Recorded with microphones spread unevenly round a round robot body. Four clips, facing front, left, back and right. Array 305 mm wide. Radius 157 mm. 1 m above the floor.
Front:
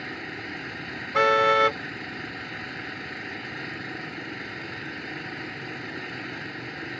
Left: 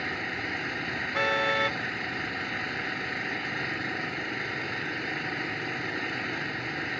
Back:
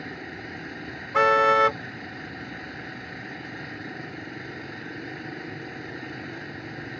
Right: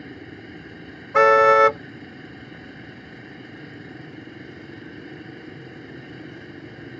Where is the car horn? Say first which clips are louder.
Right 14 dB, back 1 dB; 80° right.